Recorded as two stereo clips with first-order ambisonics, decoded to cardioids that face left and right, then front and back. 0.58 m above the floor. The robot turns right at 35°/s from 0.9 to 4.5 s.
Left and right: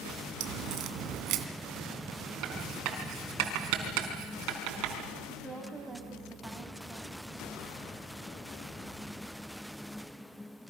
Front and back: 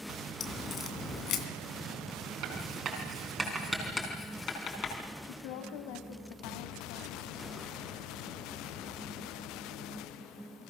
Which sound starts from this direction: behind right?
Writing, at 2.4 s.